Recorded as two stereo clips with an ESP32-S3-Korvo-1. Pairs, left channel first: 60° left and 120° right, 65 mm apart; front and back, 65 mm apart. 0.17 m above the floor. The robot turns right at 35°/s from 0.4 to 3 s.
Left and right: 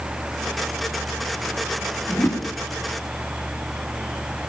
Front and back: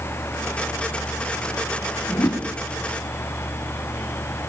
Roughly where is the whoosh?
Ahead.